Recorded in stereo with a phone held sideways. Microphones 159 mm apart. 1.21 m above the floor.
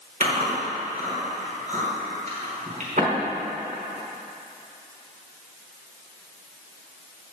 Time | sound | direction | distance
0.2 | chewing | 50° right (ahead or behind) | 5 m